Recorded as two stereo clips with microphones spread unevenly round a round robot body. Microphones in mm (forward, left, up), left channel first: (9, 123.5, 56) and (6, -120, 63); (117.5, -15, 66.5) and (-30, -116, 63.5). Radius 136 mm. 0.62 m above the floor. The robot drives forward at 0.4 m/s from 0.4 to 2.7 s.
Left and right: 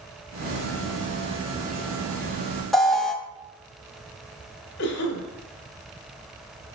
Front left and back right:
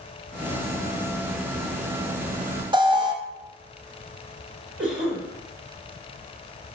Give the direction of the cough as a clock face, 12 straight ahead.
8 o'clock.